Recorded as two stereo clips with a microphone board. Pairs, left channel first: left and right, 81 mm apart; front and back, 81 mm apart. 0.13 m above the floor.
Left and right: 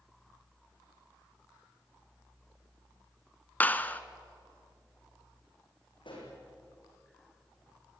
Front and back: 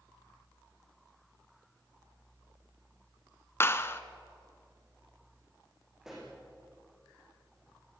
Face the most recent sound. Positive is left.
turn(degrees=95)